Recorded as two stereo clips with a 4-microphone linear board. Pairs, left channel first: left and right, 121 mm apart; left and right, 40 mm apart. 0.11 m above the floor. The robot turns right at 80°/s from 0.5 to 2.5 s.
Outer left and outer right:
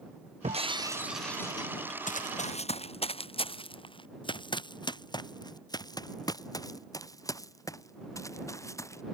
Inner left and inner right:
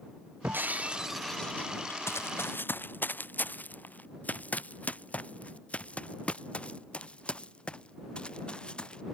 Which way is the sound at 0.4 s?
55° right.